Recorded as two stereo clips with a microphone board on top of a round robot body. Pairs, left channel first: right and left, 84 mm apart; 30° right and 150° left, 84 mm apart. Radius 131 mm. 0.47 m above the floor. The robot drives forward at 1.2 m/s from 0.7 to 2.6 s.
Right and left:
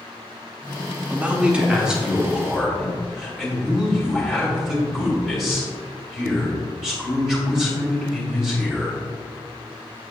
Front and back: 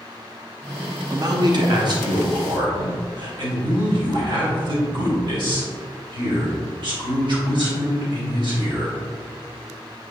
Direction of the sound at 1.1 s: 155° left.